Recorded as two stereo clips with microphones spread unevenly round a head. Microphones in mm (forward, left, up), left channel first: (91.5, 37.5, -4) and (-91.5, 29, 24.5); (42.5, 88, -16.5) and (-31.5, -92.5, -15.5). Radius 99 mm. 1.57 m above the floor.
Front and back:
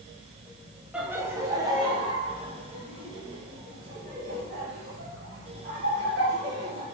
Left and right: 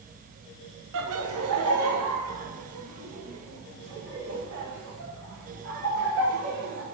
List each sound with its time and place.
0.9 s laughter: 95° right, 1.0 m; by 6.8 s 125° right, 4 m